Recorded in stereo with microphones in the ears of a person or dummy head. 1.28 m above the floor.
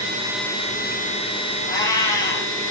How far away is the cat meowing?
About 1.0 m.